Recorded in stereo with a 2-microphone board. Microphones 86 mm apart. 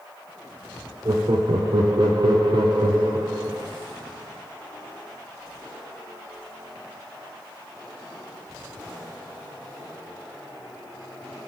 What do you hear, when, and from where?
1.1 s laughter: 55° right (ahead or behind), 0.6 m